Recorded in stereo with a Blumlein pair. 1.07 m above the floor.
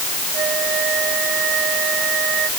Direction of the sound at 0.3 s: 30° right.